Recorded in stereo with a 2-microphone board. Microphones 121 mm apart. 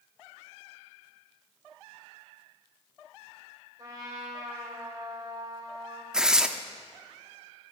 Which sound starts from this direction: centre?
Tearing paper, at 6.1 s.